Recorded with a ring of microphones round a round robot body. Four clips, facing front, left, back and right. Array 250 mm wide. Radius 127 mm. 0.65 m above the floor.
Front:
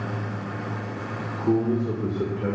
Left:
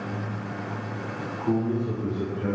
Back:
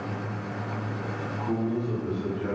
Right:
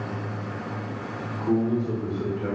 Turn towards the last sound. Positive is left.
turn(degrees=5)